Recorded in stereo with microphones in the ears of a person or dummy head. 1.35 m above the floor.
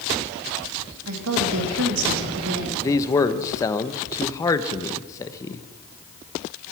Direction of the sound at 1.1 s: 80° right.